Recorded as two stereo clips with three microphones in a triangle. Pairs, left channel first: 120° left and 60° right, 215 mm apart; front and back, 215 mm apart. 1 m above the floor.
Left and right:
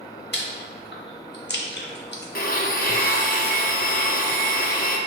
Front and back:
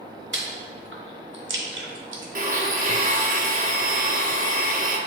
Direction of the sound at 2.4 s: 145° left.